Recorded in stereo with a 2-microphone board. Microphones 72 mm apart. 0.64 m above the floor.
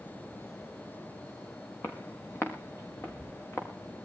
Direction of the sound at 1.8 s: 35° left (ahead or behind).